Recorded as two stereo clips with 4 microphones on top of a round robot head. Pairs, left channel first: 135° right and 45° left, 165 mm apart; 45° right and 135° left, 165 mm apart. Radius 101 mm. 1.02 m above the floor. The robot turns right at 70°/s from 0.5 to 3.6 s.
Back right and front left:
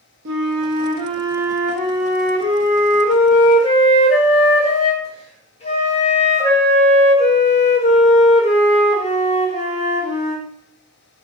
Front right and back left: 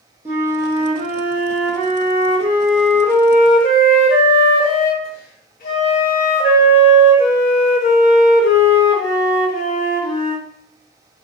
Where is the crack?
I don't hear a crack.